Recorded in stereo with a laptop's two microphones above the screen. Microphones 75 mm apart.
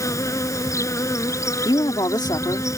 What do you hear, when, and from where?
0.0 s an insect: 45° left (ahead or behind)
1.6 s a woman speaking: 70° left (ahead or behind)